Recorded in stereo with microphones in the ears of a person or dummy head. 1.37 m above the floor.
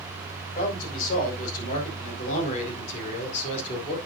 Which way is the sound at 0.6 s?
50° left (ahead or behind).